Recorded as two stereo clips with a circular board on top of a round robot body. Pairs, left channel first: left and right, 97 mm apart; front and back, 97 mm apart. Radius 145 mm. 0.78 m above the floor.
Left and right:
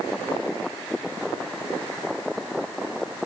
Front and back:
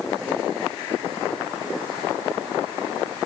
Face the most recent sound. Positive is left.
No sound to turn to.